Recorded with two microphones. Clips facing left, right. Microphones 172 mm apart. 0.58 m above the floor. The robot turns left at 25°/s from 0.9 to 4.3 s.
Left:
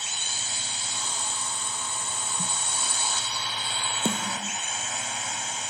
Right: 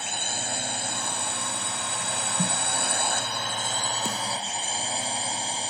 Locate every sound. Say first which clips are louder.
0.0 s a drone: right 7 dB; 60° right; by 5.7 s 145° right
2.4 s a snare drum: right 9 dB; 80° right; by 2.6 s 85° right
4.0 s a snare drum: left 2 dB; 25° left (ahead or behind); by 4.6 s 35° left (ahead or behind)